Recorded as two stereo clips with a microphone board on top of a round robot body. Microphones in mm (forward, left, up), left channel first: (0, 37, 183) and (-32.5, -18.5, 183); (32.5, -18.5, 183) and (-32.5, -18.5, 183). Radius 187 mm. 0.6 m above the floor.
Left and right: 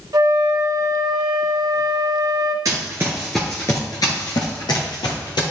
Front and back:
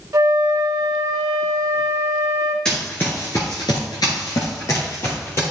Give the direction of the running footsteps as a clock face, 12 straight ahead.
3 o'clock.